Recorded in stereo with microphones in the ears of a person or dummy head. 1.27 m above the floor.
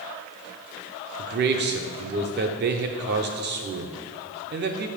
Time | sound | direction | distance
1.2 | a man speaking | 45° right (ahead or behind) | 0.7 m